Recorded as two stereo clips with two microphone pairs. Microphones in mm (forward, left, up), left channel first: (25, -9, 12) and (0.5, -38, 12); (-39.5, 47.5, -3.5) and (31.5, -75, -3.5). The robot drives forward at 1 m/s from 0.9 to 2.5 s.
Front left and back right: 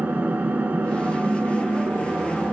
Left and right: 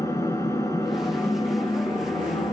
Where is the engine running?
170° right, 5.5 m; by 2.5 s 175° right, 7 m.